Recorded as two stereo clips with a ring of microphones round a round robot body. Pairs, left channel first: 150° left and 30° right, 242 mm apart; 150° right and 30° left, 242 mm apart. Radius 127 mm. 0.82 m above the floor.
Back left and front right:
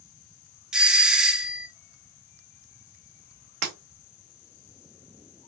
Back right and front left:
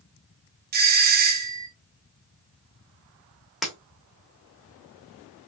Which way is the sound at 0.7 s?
55° left.